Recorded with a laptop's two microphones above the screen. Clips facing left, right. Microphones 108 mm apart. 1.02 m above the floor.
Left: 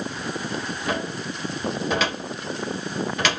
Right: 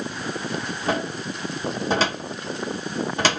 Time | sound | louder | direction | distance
0.9 | a cupboard door | right 3 dB | 30° right (ahead or behind) | 1.0 m